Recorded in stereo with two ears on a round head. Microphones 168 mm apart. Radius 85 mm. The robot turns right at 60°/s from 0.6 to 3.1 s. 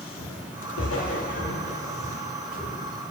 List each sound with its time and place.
0.2 s footsteps: 75° left (ahead or behind), 3.5 m; by 2.8 s 10° right (ahead or behind), 4.5 m